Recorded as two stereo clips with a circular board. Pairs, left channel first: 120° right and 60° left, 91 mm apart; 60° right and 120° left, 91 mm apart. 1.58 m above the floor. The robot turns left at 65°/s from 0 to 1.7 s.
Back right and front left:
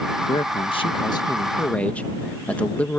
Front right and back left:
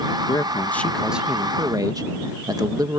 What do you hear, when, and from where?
0.3 s a man speaking: 100° right; by 3.0 s 165° left